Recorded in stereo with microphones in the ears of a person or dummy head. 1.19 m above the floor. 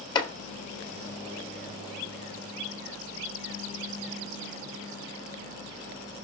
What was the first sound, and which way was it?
Chopping, 30° left (ahead or behind).